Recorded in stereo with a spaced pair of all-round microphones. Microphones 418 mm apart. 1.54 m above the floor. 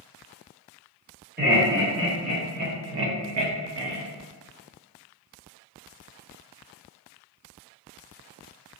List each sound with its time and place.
1.4 s laughter: 25° right (ahead or behind), 1.2 m; by 4.0 s 60° right (ahead or behind), 0.6 m